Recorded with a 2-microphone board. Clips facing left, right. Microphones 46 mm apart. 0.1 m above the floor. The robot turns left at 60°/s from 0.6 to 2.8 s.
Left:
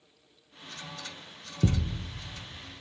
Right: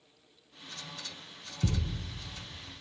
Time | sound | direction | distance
1.6 | a thud | 50° left (ahead or behind) | 0.8 m